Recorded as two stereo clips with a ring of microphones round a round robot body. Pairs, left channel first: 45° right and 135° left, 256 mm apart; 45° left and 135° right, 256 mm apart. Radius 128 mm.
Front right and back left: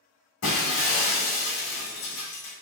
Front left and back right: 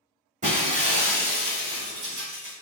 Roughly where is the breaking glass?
Right.